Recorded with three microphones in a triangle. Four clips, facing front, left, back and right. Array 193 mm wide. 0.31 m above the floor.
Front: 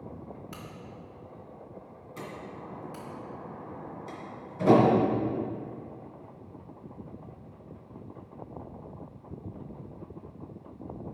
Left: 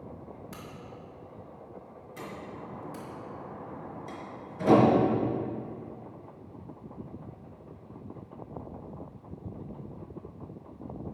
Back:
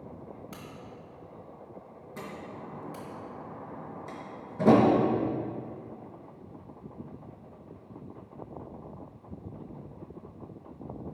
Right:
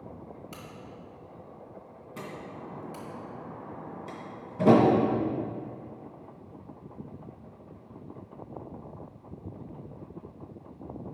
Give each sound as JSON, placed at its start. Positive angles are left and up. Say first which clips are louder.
{"t": 0.5, "sound": "a crack", "louder": "even, even", "azimuth_deg": 25, "distance_m": 1.5}
{"t": 2.2, "sound": "a door slam", "louder": "right 1 dB, even", "azimuth_deg": -130, "distance_m": 2.5}